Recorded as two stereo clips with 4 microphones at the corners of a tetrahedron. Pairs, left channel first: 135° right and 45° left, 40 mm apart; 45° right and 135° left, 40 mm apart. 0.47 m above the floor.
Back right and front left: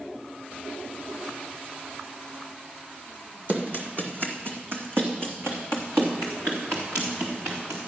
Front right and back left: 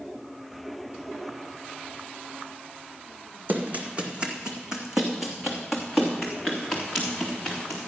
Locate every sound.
3.5 s running footsteps: 90° left, 1.5 m; by 7.9 s 35° left, 4 m